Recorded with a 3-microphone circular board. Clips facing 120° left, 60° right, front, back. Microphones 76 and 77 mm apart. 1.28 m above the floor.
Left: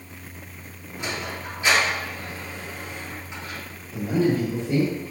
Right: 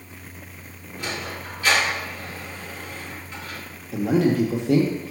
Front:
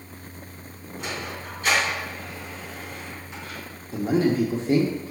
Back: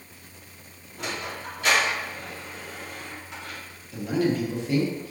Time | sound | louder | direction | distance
1.0 | a sliding door | even, even | 170° right | 2.5 m
3.9 | a man speaking | right 2 dB, front 3 dB | 60° right | 0.9 m